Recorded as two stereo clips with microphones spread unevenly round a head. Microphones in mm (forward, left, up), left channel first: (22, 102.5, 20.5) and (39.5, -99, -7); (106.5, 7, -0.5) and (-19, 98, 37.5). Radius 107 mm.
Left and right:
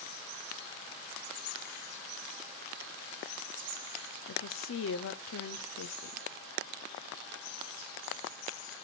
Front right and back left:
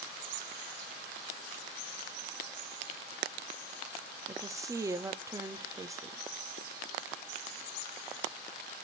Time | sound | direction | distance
4.3 | a woman speaking | 70° left | 0.8 m